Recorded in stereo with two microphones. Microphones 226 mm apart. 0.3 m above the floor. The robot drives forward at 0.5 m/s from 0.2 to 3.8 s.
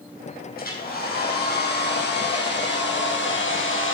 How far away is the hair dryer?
About 4.5 m.